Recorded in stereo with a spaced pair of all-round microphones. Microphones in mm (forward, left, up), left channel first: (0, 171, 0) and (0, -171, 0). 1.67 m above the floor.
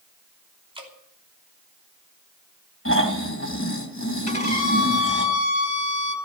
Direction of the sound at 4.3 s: 50° left (ahead or behind).